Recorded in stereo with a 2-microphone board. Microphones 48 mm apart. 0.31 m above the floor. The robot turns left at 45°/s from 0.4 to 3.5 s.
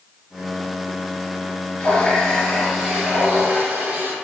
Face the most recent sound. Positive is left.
turn(degrees=-40)